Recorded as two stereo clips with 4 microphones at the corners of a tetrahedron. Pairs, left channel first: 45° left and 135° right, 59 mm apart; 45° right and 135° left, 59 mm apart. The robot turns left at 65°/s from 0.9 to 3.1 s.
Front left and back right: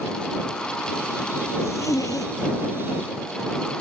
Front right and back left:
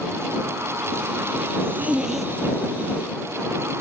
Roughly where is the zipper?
Left.